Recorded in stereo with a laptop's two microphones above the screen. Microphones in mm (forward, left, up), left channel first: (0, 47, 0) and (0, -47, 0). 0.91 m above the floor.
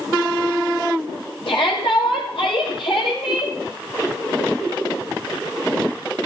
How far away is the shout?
About 5.5 m.